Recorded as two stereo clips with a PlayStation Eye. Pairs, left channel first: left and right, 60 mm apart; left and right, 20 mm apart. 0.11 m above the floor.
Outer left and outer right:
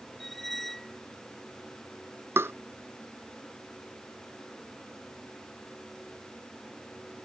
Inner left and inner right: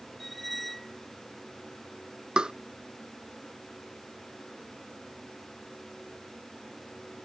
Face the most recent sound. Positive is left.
turn(degrees=-40)  # may be behind; listen again after turning